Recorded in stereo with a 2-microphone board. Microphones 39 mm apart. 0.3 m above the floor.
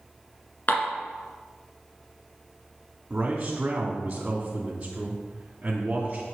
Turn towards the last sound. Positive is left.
turn(degrees=-25)  # may be behind; listen again after turning